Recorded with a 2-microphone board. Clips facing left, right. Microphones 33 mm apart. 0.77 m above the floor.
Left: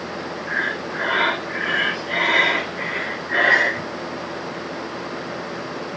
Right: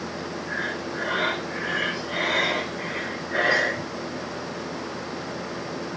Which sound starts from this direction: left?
Breathing, at 0.5 s.